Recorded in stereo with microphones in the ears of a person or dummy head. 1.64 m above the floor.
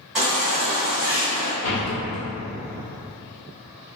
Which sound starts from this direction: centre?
A baby crying, at 0.1 s.